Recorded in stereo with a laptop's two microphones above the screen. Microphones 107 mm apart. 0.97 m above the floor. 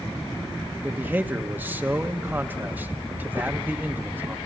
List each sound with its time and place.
0.8 s a man speaking: 15° right (ahead or behind), 1.1 m